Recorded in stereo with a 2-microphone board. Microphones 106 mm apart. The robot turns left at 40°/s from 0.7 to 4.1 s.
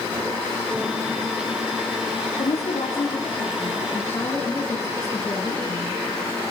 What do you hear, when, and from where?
2.4 s a woman speaking: 100° left, 6.5 m; by 6.0 s 30° left, 6.5 m